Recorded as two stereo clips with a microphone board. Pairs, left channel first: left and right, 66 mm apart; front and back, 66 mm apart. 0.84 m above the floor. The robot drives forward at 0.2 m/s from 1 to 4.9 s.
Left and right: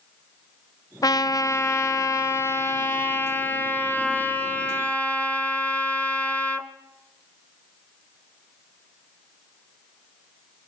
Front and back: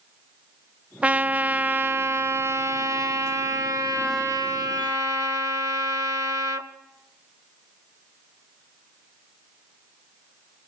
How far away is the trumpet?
About 0.5 m.